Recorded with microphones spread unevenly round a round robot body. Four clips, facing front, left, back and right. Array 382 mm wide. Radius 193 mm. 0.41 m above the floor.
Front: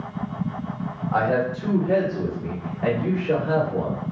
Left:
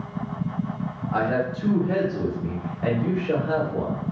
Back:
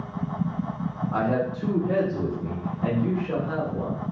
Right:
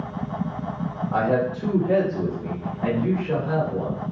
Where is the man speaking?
105° right, 1.7 m; by 4.0 s 30° left, 1.6 m.